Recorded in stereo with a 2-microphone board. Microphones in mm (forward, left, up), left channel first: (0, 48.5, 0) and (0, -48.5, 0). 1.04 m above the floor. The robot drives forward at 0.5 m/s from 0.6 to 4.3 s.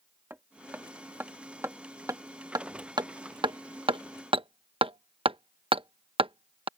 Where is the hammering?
20° right (ahead or behind); by 6.7 s 65° right (ahead or behind).